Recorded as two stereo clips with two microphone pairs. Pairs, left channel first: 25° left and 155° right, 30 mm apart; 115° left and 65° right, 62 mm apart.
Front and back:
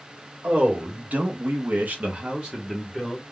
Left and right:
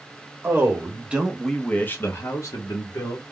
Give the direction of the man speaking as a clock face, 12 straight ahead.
4 o'clock.